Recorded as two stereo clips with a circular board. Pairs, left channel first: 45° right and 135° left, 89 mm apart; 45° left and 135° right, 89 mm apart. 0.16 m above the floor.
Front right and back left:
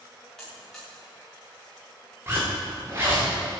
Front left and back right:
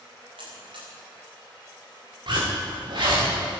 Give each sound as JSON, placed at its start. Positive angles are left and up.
{"t": 0.4, "sound": "a buzzer", "azimuth_deg": -125, "distance_m": 7.0}
{"t": 2.3, "sound": "a zipper", "azimuth_deg": -165, "distance_m": 5.5}